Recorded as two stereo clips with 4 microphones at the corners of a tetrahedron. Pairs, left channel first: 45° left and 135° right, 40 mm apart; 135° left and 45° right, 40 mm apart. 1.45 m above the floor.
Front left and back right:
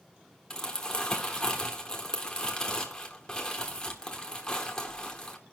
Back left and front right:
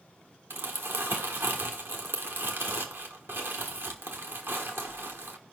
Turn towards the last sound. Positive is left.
turn(degrees=-30)